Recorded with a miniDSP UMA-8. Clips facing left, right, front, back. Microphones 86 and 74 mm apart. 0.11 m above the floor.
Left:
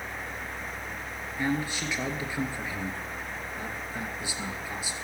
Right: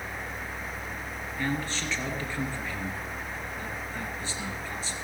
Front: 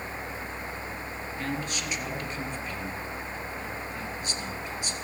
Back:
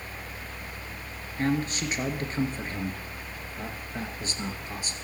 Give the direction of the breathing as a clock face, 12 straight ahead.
No breathing in this recording.